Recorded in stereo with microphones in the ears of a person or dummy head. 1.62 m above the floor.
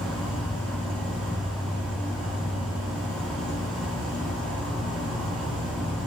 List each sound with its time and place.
0.0 s an insect: 25° left (ahead or behind), 1.2 m